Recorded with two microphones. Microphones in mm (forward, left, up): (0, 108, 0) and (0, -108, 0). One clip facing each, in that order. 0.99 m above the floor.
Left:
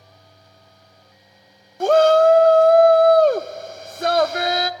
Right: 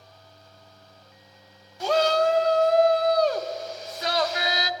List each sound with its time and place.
1.8 s a shout: 50° left (ahead or behind), 0.6 m